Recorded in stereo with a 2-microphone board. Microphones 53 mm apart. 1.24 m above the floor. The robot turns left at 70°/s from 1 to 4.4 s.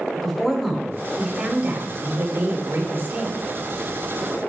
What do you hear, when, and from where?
0.1 s a woman speaking: 5° left, 2.5 m; by 3.4 s 160° right, 2.5 m